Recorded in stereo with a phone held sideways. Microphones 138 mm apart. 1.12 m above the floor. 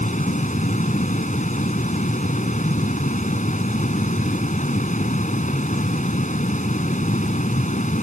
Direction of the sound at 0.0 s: 70° left (ahead or behind).